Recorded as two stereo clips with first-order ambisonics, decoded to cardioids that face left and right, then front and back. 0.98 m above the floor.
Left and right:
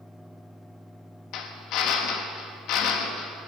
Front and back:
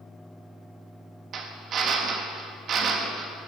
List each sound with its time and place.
1.3 s a drill: 125° left, 1.3 m